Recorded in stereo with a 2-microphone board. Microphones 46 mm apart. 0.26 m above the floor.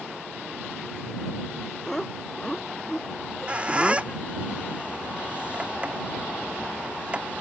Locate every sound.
1.9 s laughter: 10° left (ahead or behind); by 4.2 s 5° left (ahead or behind)
3.2 s a squeak: 25° right (ahead or behind)